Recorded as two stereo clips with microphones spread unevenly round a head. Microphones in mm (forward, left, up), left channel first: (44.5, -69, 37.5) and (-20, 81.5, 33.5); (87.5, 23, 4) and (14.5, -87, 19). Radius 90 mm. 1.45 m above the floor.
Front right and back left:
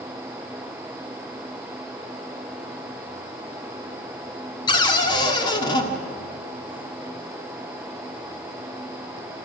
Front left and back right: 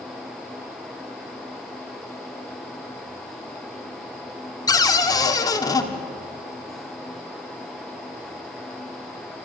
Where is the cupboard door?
5° right, 1.7 m.